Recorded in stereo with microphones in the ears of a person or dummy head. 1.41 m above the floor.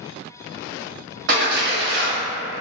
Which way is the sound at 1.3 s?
55° right (ahead or behind).